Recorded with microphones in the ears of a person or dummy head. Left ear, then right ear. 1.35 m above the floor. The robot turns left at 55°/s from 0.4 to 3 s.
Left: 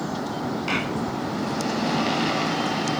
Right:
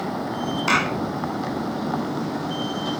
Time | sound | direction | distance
0.7 | a clap | 45° right (ahead or behind) | ?